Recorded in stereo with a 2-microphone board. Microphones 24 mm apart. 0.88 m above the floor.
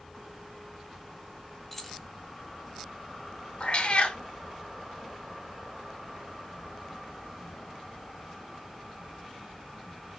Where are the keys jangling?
10° left (ahead or behind), 0.7 m.